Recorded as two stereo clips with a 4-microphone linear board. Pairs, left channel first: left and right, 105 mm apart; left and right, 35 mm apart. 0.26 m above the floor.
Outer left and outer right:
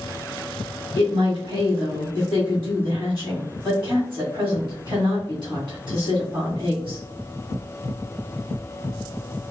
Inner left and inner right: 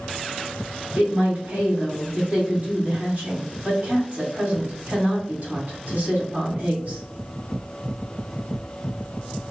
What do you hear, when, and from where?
0.9 s a woman speaking: 45° right (ahead or behind), 2.5 m